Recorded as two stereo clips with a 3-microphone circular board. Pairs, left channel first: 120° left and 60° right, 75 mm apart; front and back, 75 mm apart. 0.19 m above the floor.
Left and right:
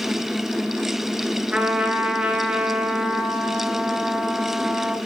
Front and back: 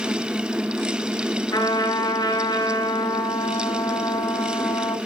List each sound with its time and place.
1.5 s a trumpet: 15° left, 3.5 m